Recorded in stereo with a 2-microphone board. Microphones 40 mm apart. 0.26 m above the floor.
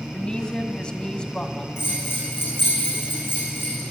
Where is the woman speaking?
25° left (ahead or behind), 1.9 m.